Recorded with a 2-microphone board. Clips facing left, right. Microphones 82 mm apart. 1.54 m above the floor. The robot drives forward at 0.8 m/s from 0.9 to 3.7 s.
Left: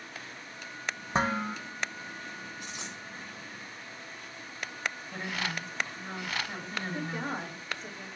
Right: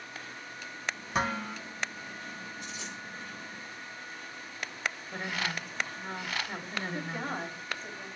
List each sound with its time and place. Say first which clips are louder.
1.1 s dishes clattering: left 3 dB; 30° left (ahead or behind), 1.0 m; by 1.6 s 25° left (ahead or behind), 1.3 m
2.6 s a dropped coin: even; 80° left, 5.5 m
5.1 s a woman speaking: right 1 dB; 5° right (ahead or behind), 2 m
6.9 s a woman speaking: left 2 dB; 20° left (ahead or behind), 3 m